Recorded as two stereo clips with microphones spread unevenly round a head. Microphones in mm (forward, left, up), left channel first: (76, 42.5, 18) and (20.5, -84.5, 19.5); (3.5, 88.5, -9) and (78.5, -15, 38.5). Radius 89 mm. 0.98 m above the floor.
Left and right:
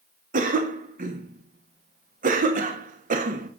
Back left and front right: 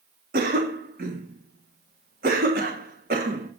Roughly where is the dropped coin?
I don't hear a dropped coin.